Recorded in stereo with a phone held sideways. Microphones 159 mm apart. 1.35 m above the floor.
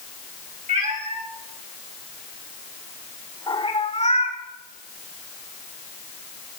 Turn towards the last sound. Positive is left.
turn(degrees=45)  # may be behind; listen again after turning